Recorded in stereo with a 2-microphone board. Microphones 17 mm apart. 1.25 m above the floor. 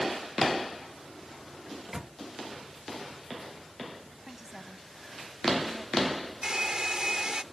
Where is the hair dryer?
55° right (ahead or behind).